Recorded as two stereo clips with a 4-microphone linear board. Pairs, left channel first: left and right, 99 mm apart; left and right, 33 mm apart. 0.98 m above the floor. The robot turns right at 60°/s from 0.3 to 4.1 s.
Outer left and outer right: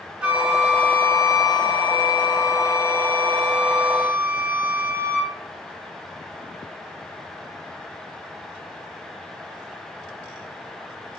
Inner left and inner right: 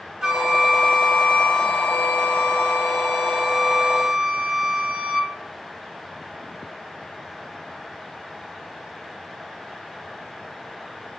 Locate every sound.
0.2 s a flute: 15° right, 1.0 m; by 5.3 s 145° right, 1.0 m